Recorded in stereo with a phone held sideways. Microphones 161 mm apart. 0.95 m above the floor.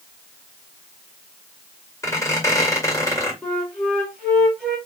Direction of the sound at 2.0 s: 20° left (ahead or behind).